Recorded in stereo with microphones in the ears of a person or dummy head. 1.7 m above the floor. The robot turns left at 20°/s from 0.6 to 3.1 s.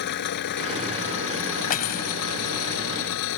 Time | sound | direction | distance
0.0 | an engine running | 120° left | ?
1.7 | cutlery clinking | 50° left (ahead or behind) | ?